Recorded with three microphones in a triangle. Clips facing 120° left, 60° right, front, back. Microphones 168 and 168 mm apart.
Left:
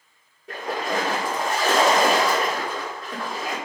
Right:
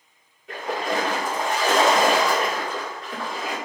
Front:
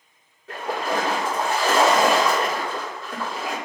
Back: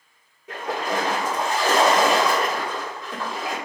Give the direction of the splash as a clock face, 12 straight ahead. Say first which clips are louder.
Right 1 dB, front 1 dB; 8 o'clock.